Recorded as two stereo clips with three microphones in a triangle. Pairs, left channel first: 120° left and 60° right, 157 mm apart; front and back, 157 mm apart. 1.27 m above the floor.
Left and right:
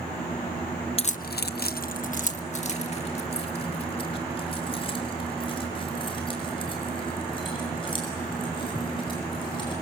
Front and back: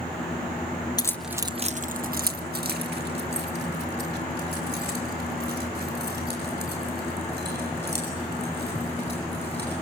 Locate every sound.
1.0 s keys jangling: 65° left, 0.6 m; by 9.7 s straight behind, 9 m